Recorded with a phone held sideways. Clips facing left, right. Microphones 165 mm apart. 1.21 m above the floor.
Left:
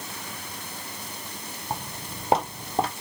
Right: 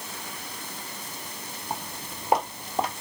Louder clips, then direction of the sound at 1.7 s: Left 2 dB; 15° left (ahead or behind).